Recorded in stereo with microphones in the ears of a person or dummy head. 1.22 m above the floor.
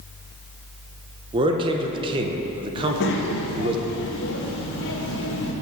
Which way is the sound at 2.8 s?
65° left (ahead or behind).